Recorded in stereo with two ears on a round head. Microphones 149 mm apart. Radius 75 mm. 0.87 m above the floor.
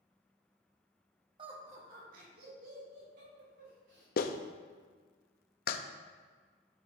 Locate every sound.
1.4 s laughter: 30° right (ahead or behind), 1.5 m; by 4.1 s 75° right (ahead or behind), 5 m
4.2 s a clap: 60° left (ahead or behind), 0.6 m